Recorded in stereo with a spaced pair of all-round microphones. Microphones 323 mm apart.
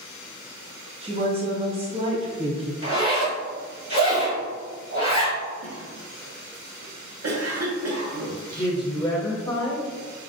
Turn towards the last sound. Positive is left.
turn(degrees=15)  # may be behind; listen again after turning